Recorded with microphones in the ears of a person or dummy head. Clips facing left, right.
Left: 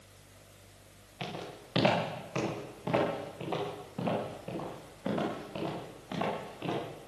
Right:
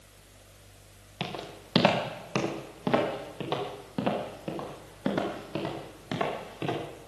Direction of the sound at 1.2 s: 70° right (ahead or behind).